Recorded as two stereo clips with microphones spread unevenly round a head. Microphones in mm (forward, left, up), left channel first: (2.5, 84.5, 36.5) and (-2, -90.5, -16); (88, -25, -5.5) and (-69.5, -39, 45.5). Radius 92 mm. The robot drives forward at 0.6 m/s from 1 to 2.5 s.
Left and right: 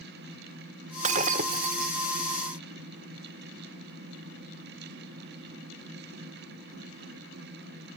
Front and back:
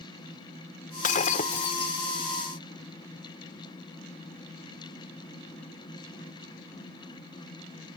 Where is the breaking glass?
35° right; by 1.9 s 60° right.